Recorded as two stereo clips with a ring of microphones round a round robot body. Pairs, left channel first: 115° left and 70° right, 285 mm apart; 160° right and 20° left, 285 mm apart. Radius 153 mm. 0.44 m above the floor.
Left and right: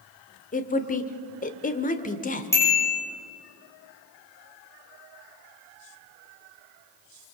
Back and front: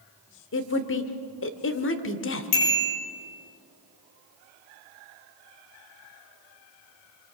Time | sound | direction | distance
0.5 | a woman speaking | 170° left | 1.4 m
2.5 | a bicycle bell | 165° right | 8.5 m